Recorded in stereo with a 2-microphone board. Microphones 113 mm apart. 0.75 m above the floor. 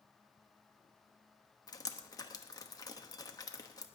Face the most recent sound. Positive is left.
turn(degrees=35)  # may be behind; listen again after turning